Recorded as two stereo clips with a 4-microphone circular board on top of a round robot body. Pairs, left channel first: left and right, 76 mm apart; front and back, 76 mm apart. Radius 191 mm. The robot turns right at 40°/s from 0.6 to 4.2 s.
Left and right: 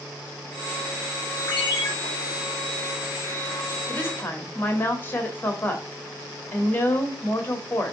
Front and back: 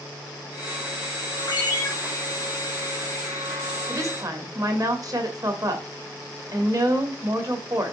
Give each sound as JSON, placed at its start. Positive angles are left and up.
{"t": 1.5, "sound": "a ringtone", "azimuth_deg": 45, "distance_m": 4.0}
{"t": 3.9, "sound": "a woman speaking", "azimuth_deg": 140, "distance_m": 1.8}